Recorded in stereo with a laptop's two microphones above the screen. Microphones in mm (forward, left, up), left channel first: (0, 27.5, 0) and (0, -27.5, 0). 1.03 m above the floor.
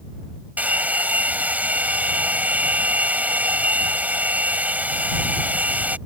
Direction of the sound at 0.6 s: 30° right (ahead or behind).